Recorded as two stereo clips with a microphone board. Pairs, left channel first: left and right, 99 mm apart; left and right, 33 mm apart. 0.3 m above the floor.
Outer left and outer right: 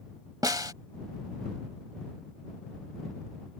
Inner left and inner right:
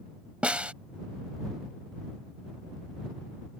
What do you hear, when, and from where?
0.4 s a snare drum: 40° right (ahead or behind)